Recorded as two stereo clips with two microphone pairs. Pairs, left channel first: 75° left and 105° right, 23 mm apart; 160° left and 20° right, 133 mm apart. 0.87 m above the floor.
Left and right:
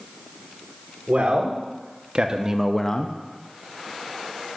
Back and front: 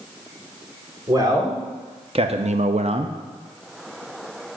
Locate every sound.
1.1 s a man speaking: 80° right, 2 m; by 3.2 s 40° left, 0.7 m